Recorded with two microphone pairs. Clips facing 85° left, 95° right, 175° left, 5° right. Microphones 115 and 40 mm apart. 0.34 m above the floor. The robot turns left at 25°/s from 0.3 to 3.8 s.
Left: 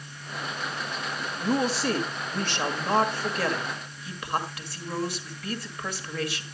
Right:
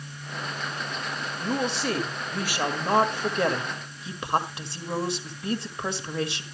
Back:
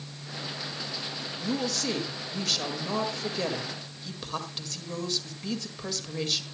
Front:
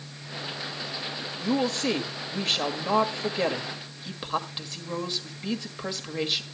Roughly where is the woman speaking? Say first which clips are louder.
Left 2 dB, front 5 dB; ahead.